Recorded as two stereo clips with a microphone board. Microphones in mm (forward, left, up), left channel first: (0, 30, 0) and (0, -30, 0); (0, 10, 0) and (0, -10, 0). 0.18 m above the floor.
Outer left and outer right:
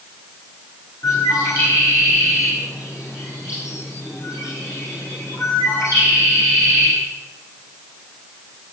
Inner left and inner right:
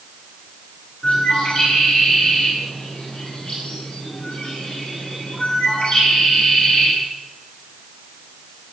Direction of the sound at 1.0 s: 70° left (ahead or behind).